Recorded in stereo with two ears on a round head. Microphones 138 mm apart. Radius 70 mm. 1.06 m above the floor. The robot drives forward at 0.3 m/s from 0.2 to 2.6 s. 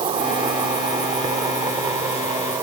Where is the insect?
30° right (ahead or behind); by 2.6 s 20° right (ahead or behind).